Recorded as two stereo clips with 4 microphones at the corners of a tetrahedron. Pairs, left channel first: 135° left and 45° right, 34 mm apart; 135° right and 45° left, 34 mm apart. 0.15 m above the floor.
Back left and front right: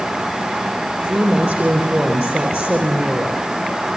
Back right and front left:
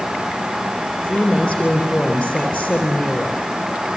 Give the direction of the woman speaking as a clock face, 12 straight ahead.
2 o'clock.